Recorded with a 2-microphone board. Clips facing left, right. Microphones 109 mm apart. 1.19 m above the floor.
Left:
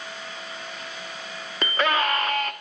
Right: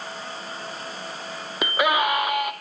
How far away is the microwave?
I don't hear a microwave.